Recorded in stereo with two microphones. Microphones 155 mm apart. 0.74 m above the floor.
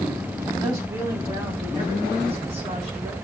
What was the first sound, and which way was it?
A woman speaking, 20° right (ahead or behind).